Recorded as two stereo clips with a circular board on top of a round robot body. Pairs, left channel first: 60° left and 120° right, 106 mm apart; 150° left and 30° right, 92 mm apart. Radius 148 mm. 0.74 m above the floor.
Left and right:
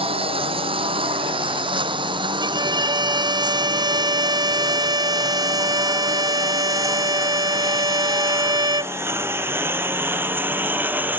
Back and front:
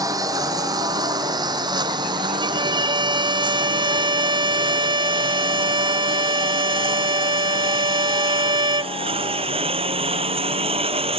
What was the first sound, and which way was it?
A lawn mower, 85° right.